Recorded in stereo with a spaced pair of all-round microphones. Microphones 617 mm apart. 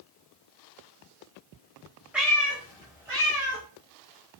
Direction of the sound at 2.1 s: Centre (ahead or behind).